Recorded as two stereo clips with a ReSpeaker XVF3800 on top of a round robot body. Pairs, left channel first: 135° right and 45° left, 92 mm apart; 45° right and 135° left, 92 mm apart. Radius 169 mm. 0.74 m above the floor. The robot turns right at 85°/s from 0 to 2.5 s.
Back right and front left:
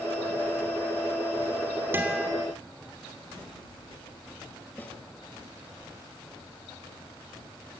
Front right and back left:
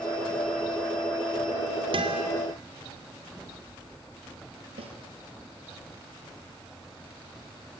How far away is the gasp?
I don't hear a gasp.